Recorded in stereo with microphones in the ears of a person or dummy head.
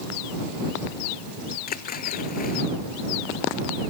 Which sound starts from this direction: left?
A splash, at 1.7 s.